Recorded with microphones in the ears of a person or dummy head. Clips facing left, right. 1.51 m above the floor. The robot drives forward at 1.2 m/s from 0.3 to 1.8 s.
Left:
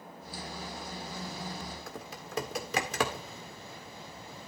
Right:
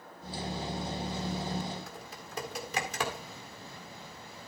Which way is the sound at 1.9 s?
55° left (ahead or behind).